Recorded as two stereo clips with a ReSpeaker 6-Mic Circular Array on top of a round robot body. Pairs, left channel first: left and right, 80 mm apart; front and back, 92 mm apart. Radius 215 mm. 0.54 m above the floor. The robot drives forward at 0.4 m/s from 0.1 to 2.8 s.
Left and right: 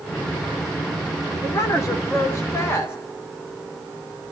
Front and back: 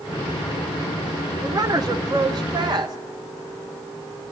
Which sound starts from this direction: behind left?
A woman speaking, at 1.4 s.